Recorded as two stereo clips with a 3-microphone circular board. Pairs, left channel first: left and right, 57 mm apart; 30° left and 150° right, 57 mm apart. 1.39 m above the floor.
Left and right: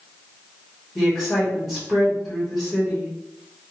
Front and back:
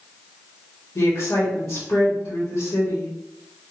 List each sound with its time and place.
0.9 s a woman speaking: 5° right, 1.3 m